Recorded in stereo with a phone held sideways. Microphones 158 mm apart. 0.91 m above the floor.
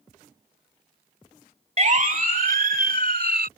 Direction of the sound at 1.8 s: 50° right (ahead or behind).